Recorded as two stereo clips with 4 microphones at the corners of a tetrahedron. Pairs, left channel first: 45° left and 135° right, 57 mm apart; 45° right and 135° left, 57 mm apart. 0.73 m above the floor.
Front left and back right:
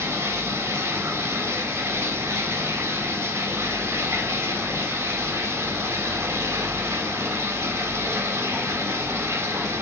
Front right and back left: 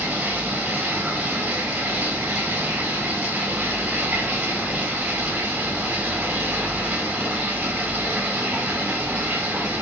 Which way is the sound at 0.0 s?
160° right.